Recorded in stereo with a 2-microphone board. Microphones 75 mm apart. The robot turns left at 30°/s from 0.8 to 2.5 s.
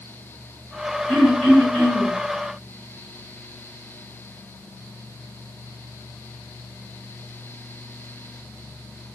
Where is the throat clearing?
165° left, 1.7 m; by 2.1 s 135° left, 1.7 m.